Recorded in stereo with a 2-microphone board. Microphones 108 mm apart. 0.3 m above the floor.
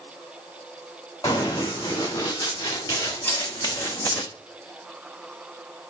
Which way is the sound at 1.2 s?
30° left (ahead or behind).